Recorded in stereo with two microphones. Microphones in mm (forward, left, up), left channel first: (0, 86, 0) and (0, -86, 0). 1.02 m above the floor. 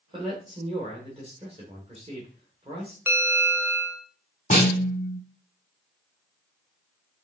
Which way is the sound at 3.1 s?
15° right (ahead or behind).